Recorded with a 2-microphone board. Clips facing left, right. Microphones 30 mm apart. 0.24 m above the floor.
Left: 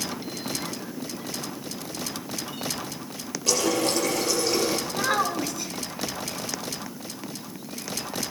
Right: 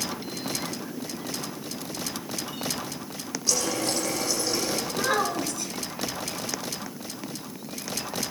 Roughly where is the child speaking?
Centre.